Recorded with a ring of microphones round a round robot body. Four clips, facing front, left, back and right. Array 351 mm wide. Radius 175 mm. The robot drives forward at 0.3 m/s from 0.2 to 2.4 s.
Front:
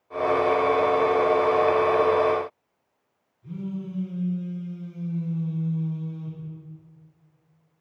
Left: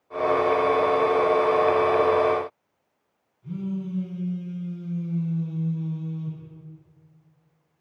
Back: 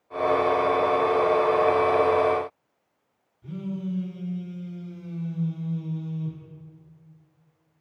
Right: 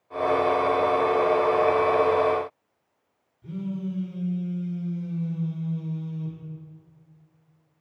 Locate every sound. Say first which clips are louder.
3.4 s a phone buzzing: left 1 dB, back 1 dB; 135° right, 2.0 m